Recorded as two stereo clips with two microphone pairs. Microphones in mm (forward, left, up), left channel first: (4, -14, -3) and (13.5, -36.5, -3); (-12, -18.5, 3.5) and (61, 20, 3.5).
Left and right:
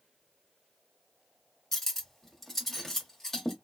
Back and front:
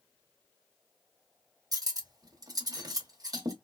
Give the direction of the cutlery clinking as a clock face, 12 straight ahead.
11 o'clock.